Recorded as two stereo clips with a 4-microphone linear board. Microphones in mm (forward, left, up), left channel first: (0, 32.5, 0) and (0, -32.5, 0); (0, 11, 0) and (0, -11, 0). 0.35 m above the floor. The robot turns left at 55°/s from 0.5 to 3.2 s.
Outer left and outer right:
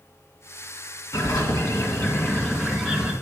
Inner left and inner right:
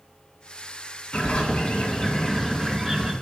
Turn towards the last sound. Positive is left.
turn(degrees=-20)